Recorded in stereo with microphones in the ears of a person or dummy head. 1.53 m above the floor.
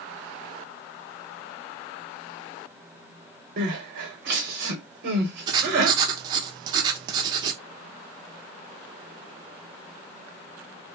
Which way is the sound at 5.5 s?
25° right (ahead or behind).